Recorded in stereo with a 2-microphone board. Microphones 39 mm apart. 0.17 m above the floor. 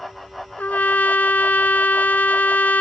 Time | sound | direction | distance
0.6 | a trumpet | 55° left (ahead or behind) | ?